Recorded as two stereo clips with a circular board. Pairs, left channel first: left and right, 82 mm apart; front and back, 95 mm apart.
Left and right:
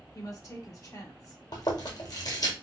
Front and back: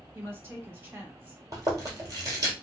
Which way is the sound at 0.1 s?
120° left.